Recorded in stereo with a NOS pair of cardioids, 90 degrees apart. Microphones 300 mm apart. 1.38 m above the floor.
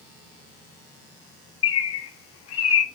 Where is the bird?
55° left, 0.5 m.